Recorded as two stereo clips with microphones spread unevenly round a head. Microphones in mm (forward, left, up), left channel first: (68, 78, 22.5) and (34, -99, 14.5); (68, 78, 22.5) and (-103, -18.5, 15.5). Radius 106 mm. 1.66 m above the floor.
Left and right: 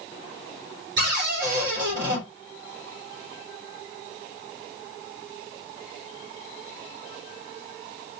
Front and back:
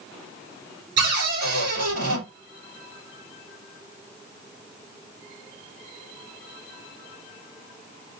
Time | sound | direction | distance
1.0 | a cupboard door | 145° right | 4 m